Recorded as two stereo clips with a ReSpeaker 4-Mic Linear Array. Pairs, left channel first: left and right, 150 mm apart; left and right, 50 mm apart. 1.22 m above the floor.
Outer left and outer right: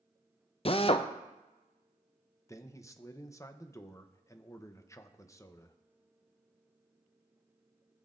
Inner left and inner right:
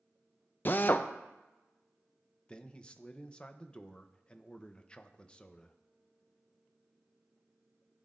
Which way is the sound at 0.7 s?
40° left (ahead or behind).